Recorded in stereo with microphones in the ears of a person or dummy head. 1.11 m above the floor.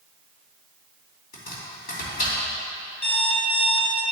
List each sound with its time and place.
1.3 s chopping: 65° left (ahead or behind), 3 m
3.0 s an alarm clock: 15° left (ahead or behind), 2.5 m